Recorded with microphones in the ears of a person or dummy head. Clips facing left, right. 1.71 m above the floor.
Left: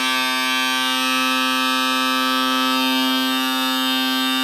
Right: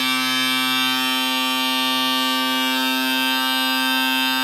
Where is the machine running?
Centre (ahead or behind), 1.8 m.